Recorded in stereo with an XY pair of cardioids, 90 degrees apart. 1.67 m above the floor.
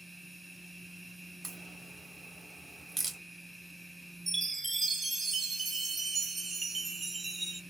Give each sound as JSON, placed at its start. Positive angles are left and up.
{"t": 0.0, "sound": "a machine running", "azimuth_deg": -5, "distance_m": 1.1}
{"t": 1.4, "sound": "a crack", "azimuth_deg": -35, "distance_m": 1.0}
{"t": 4.3, "sound": "a chime", "azimuth_deg": -35, "distance_m": 0.9}